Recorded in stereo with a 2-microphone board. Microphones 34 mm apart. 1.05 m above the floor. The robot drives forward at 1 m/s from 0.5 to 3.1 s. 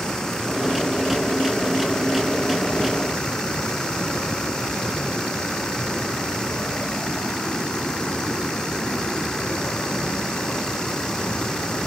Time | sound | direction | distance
0.0 | running water | 15° left (ahead or behind) | ?